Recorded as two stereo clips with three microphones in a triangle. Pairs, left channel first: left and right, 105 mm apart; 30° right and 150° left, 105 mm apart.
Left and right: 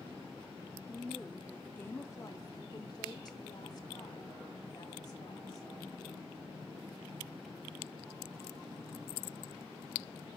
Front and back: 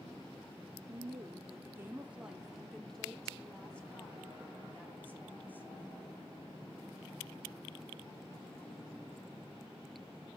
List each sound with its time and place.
0.9 s a woman speaking: 175° right, 0.9 m; by 5.7 s 40° left, 2.5 m